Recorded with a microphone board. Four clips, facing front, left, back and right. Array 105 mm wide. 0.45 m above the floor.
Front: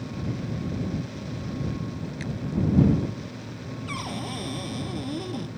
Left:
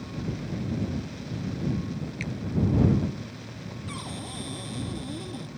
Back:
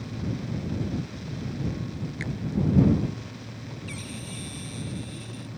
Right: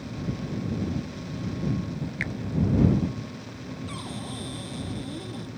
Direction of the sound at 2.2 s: 100° right.